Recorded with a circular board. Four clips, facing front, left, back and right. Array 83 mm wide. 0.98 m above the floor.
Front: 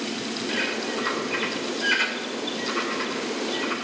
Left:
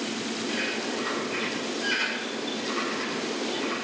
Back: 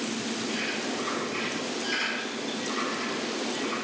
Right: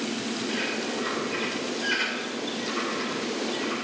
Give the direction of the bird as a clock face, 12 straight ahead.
12 o'clock.